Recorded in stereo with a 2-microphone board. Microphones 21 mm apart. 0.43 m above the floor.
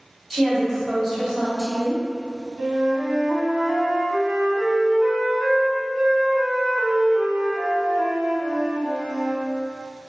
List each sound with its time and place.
0.3 s a woman speaking: centre (ahead or behind), 1.5 m
2.6 s a flute: 60° right (ahead or behind), 0.5 m